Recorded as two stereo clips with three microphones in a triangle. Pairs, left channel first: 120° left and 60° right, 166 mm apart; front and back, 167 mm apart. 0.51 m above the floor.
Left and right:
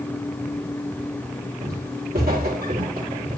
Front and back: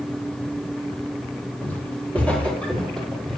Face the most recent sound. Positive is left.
turn(degrees=-85)